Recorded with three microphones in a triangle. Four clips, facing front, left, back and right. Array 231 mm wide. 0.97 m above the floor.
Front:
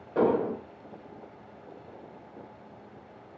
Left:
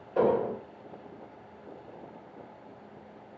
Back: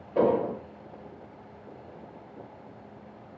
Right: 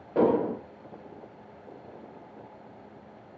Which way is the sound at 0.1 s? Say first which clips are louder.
Right 2 dB, back 1 dB; 80° right.